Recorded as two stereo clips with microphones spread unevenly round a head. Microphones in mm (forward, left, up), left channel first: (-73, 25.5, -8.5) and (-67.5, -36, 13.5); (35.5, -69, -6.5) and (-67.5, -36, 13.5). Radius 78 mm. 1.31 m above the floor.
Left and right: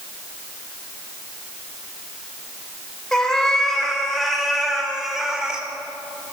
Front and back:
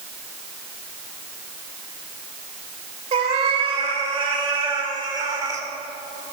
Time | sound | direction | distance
3.1 | a cat meowing | 175° right | 2.5 m